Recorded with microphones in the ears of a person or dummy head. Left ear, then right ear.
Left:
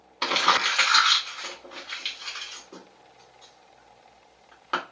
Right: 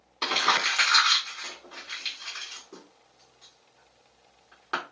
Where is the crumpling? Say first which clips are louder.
Left 2 dB; 15° left (ahead or behind), 1.7 m.